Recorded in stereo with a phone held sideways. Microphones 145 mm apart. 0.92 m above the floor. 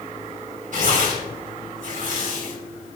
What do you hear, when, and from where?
0.7 s tearing paper: 60° right (ahead or behind), 3 m